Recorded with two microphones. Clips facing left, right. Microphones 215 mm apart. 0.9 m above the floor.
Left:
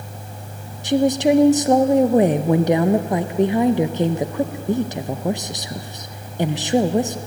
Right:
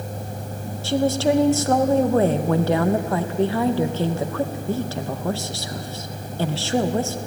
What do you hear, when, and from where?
0.8 s a woman speaking: 15° left (ahead or behind), 0.6 m